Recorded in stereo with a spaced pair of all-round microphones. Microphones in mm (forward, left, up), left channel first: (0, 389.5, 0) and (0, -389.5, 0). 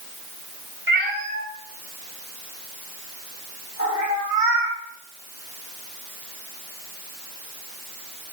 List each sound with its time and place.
0.9 s a cat meowing: 15° right (ahead or behind), 3.5 m; by 4.8 s 30° left (ahead or behind), 4.5 m